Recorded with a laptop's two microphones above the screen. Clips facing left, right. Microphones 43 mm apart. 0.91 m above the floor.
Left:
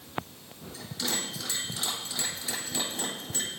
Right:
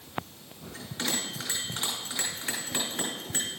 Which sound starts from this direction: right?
A bell, at 0.7 s.